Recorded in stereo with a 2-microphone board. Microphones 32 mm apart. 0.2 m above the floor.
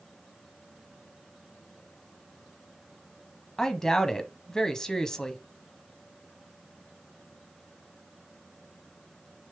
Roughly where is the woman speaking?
Centre.